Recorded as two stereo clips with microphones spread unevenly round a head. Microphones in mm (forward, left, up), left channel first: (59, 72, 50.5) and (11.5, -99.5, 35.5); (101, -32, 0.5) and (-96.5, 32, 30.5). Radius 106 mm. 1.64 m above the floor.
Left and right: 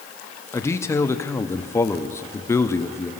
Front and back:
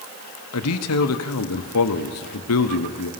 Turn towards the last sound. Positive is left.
turn(degrees=0)